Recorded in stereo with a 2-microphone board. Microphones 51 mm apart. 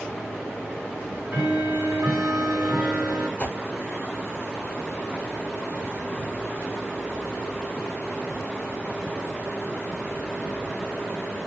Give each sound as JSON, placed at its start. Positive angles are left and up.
{"t": 1.0, "sound": "ticking", "side_deg": -45, "distance_m": 2.0}
{"t": 3.4, "sound": "a whoosh", "side_deg": 35, "distance_m": 0.9}